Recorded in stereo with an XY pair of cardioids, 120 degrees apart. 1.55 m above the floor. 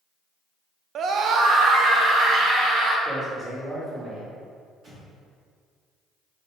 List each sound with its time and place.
0.9 s a scream: 55° right, 0.8 m; by 3.0 s 65° right, 3 m
3.0 s a man speaking: 25° right, 2.5 m
4.8 s an explosion: 55° right, 2.5 m